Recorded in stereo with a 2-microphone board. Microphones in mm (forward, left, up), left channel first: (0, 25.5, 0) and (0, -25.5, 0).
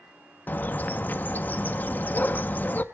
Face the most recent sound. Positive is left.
turn(degrees=35)  # may be behind; listen again after turning